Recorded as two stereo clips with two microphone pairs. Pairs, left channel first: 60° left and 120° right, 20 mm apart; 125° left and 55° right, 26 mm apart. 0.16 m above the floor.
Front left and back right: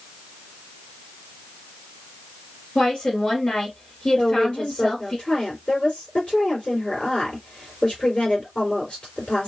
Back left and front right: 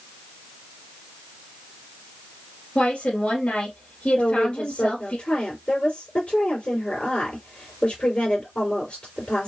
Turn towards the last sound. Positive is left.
turn(degrees=100)